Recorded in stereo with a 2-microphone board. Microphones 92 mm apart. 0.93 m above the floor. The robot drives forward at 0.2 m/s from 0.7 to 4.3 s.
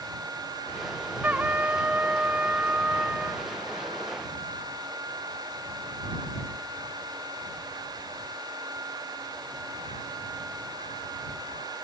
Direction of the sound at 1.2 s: 20° right (ahead or behind).